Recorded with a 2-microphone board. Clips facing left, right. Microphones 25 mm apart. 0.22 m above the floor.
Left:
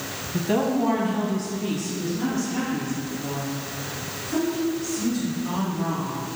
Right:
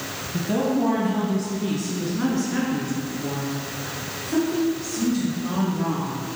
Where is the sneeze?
No sneeze in this recording.